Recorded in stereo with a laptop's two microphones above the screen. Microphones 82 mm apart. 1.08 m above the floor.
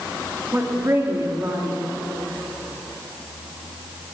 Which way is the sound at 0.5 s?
30° right (ahead or behind).